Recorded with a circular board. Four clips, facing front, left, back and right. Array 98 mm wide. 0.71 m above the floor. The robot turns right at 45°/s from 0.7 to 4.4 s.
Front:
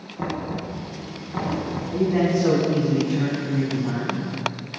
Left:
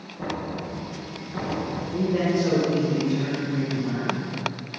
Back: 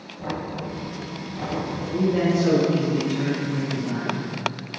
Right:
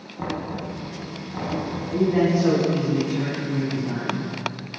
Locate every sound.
0.2 s knocking: 40° right, 4.5 m; by 1.8 s 10° left, 4.5 m
1.9 s a man speaking: 65° right, 5.5 m; by 4.2 s 40° left, 5.5 m